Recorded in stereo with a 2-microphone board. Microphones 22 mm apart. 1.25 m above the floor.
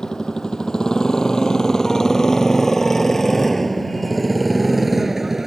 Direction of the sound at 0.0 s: 40° left (ahead or behind).